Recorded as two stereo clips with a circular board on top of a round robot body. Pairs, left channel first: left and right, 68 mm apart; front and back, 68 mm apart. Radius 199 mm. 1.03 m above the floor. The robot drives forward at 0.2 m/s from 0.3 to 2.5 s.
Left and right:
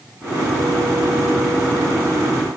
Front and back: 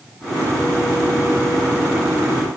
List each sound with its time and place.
Only background noise.